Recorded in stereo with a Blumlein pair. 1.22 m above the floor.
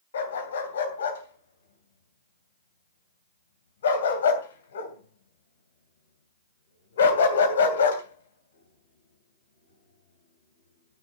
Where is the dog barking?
65° left, 2.5 m.